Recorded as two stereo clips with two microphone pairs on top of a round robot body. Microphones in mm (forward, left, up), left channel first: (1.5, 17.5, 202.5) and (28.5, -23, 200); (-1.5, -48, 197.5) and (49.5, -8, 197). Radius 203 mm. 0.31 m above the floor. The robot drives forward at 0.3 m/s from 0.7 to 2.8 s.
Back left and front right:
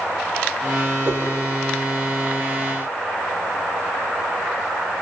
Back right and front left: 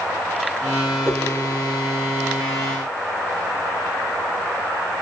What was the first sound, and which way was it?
A whoosh, 15° right.